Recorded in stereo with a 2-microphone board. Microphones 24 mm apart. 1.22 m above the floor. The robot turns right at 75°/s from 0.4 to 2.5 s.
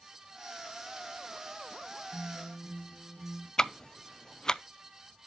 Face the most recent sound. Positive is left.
turn(degrees=25)  # may be behind; listen again after turning